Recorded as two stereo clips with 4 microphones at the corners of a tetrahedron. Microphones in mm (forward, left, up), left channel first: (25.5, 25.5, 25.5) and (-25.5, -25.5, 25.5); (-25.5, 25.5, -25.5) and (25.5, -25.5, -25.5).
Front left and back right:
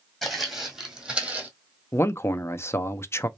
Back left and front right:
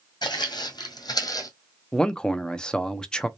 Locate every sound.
0.2 s footsteps: 135° left, 1.6 m; by 1.5 s 160° left, 1.2 m
1.9 s a man speaking: 65° left, 0.5 m